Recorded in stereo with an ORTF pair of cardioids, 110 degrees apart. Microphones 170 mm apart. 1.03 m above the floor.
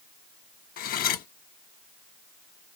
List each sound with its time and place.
0.8 s cutlery clinking: 60° left, 0.6 m